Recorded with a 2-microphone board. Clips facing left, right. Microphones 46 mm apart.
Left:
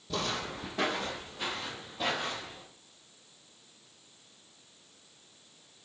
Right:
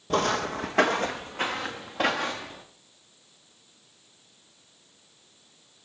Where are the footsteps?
55° right (ahead or behind), 0.8 m; by 2.6 s 70° right (ahead or behind), 3 m.